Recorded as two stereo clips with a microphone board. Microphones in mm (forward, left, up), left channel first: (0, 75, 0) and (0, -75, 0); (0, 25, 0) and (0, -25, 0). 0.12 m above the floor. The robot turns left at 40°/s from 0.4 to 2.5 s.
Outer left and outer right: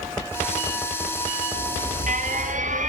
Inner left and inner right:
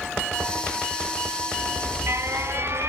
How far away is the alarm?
About 3 m.